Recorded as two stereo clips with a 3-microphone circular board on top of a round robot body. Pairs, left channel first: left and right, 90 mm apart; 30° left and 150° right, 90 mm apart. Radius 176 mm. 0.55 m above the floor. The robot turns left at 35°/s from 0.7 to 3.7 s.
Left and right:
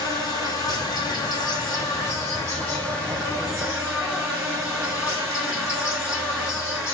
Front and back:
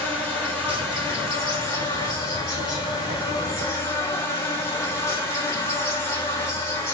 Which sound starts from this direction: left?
An insect, at 0.0 s.